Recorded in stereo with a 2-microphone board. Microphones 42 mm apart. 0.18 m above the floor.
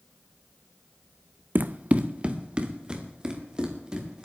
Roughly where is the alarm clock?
I don't hear an alarm clock.